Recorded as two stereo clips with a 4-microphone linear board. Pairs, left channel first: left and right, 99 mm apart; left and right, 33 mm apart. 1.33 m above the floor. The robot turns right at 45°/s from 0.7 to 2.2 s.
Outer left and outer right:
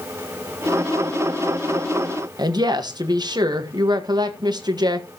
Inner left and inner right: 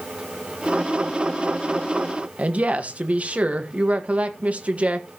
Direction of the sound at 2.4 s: 45° right (ahead or behind).